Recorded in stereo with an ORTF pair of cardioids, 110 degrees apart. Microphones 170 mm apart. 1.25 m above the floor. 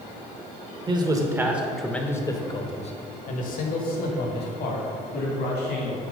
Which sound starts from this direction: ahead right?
A man speaking, at 0.9 s.